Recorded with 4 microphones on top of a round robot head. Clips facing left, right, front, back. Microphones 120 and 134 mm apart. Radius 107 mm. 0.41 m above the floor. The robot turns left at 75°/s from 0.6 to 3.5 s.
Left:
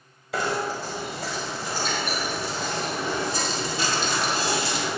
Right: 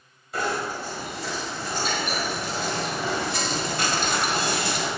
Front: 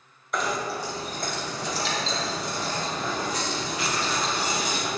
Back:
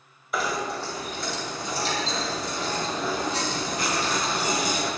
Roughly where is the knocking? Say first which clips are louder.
Left 1 dB, even; left.